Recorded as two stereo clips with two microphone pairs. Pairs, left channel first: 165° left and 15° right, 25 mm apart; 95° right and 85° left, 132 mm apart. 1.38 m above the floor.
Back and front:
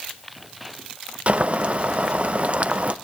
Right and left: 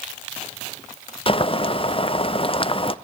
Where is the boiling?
55° right, 0.6 m.